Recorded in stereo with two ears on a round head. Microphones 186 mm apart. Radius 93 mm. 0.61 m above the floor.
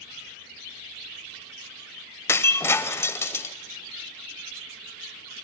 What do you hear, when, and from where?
2.3 s breaking glass: 10° left (ahead or behind), 0.6 m